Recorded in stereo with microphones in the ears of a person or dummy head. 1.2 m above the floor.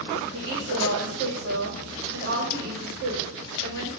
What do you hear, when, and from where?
0.3 s a woman speaking: 60° right (ahead or behind), 2 m